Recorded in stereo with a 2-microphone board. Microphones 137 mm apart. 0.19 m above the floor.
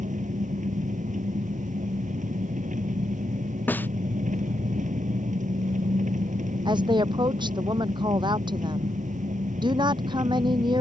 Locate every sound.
0.0 s an engine running: 70° right (ahead or behind)
3.7 s a snare drum: 15° left (ahead or behind)
6.7 s a woman speaking: 35° right (ahead or behind)